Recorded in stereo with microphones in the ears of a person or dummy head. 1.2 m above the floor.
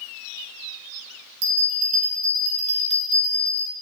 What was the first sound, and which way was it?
A bell, 20° right (ahead or behind).